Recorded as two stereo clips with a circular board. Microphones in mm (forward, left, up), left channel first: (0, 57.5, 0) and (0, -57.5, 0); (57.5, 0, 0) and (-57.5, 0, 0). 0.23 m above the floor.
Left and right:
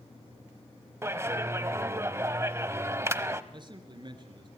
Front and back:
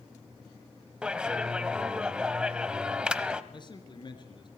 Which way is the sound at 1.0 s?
110° right.